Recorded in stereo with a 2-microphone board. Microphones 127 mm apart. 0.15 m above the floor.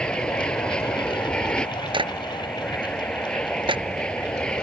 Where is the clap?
40° right (ahead or behind).